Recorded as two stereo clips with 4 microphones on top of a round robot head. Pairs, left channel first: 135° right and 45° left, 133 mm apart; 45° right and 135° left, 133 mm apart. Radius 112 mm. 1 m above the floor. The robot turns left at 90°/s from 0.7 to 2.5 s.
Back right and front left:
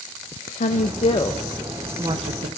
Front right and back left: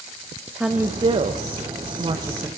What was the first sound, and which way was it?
A woman speaking, 140° right.